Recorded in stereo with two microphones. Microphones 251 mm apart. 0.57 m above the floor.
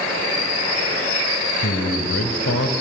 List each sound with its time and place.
1.6 s a man speaking: 65° left (ahead or behind), 2.5 m